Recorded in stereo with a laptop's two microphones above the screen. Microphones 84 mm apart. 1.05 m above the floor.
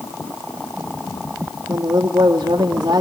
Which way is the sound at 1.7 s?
65° right (ahead or behind).